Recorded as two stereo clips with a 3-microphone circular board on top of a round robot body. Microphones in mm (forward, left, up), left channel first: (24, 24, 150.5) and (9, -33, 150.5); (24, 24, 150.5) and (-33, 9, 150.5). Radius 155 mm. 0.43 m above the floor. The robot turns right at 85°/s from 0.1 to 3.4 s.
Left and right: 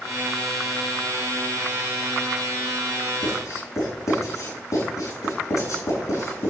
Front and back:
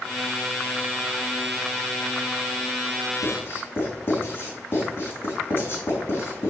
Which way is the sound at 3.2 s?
45° left.